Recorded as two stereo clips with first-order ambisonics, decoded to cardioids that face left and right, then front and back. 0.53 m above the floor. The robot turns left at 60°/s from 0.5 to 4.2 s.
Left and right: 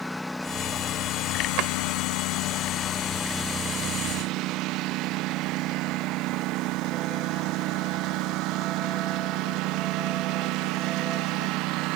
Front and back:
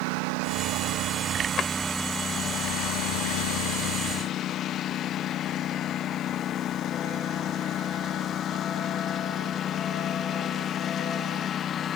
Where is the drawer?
55° right; by 1.7 s 65° right.